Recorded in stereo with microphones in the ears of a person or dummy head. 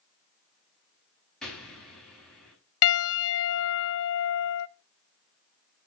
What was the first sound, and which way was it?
An explosion, centre (ahead or behind).